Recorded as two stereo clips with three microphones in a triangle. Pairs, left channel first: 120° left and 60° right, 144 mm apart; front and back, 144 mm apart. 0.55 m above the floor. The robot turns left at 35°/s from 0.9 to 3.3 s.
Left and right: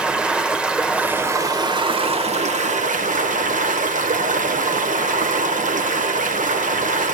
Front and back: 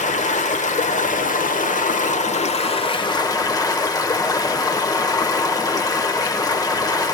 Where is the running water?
25° left, 1.4 m; by 7.2 s 60° right, 1.4 m.